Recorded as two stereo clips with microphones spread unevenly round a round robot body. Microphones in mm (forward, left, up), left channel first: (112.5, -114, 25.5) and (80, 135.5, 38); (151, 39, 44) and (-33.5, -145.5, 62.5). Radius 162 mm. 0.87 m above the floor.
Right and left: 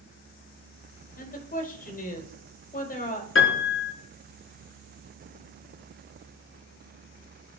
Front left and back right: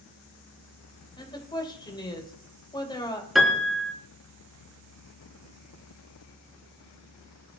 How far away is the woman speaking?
About 5 m.